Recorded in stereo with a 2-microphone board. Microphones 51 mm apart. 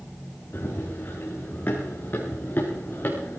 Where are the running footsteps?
40° left (ahead or behind), 6 m.